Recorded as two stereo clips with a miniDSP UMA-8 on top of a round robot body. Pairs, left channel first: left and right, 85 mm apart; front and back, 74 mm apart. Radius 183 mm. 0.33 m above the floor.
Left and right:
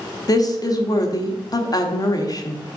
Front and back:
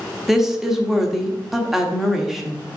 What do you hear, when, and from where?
0.3 s a woman speaking: 95° left, 1.6 m